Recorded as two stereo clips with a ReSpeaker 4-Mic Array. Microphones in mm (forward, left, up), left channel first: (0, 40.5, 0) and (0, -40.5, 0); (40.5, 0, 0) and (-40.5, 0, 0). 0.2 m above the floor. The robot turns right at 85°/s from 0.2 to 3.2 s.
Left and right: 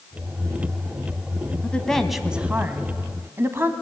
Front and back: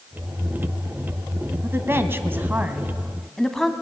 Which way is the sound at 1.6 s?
145° left.